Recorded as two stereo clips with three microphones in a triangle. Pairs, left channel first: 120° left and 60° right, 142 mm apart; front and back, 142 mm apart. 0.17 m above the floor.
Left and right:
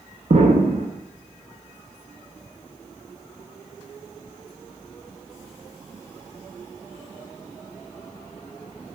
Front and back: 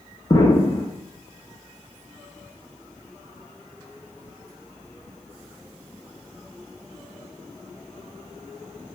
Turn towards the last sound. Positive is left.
turn(degrees=-55)